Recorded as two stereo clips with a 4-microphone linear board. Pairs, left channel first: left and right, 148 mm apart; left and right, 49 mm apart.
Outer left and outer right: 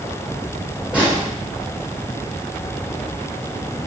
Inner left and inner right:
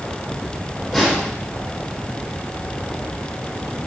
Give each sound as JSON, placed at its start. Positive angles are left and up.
{"t": 0.9, "sound": "a snare drum", "side_deg": -5, "distance_m": 4.0}